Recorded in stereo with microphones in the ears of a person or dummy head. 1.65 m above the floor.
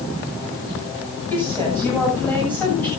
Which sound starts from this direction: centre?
A woman speaking, at 1.3 s.